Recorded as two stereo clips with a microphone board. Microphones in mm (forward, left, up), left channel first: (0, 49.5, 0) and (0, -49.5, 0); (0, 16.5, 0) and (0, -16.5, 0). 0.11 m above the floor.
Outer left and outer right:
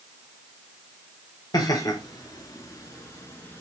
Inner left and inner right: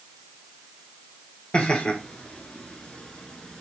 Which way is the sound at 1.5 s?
35° left (ahead or behind).